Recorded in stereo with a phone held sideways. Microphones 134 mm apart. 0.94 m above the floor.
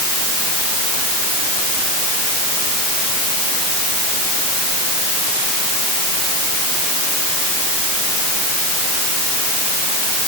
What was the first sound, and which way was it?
Only background noise.